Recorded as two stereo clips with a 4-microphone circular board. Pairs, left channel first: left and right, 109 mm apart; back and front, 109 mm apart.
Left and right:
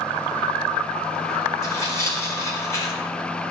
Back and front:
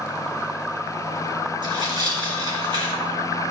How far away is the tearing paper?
About 2.5 m.